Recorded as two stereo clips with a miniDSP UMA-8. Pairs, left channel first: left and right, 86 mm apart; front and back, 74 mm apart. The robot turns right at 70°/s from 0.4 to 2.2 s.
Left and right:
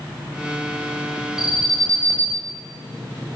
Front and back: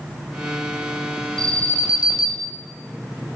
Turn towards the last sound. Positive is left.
turn(degrees=-25)